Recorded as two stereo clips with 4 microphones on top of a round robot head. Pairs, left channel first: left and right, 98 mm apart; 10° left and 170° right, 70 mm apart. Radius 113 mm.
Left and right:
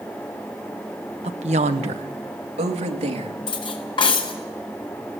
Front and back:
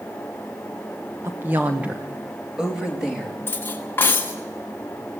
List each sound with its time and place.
1.2 s a woman speaking: 110° right, 0.8 m; by 3.3 s 90° right, 3 m
3.5 s cutlery clinking: 60° left, 1.5 m